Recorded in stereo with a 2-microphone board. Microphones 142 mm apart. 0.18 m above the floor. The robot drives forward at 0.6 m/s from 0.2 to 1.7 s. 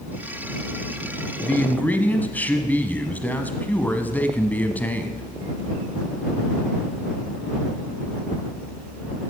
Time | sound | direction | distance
1.4 | a man speaking | 10° left (ahead or behind) | 1.1 m